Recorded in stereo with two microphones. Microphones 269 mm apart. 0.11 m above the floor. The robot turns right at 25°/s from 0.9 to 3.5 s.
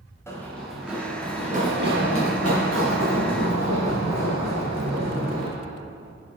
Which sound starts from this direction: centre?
Running footsteps, at 0.3 s.